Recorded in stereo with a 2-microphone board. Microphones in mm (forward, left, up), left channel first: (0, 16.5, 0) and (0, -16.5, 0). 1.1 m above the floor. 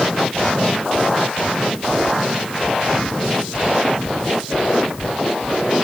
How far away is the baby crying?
No baby crying in this recording.